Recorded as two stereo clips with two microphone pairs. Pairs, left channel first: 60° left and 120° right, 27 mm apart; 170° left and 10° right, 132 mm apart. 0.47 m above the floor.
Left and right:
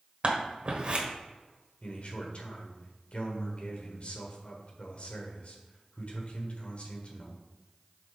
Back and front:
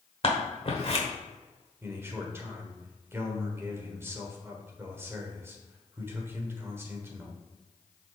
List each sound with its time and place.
0.2 s scissors: 155° right, 1.3 m
1.8 s a man speaking: 60° left, 1.4 m